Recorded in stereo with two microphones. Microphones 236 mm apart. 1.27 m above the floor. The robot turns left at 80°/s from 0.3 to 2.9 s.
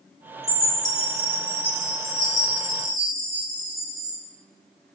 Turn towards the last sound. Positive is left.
turn(degrees=70)